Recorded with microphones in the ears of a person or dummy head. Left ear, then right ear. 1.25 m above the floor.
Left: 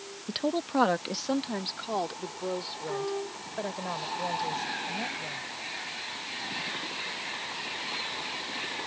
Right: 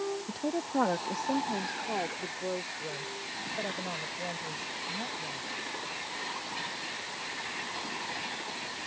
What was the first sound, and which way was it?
A woman speaking, 40° left (ahead or behind).